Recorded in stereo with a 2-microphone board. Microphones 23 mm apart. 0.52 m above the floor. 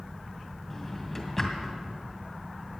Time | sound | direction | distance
0.7 | a drawer | 15° left (ahead or behind) | 2.5 m